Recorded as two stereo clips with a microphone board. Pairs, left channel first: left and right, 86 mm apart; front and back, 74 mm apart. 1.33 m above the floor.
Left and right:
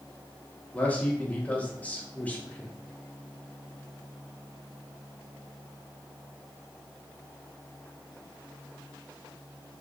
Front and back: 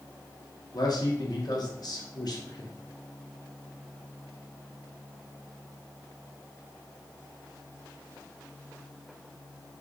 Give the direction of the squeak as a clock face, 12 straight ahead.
No squeak in this recording.